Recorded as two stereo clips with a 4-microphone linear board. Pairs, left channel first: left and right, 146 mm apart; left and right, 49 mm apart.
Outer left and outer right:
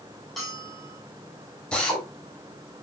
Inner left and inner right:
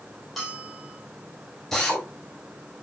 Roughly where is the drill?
Centre.